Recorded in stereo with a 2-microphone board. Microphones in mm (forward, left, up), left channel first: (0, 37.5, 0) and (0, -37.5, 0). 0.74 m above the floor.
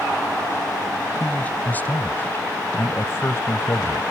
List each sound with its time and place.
1.2 s a man speaking: 20° left (ahead or behind); by 4.0 s 40° left (ahead or behind)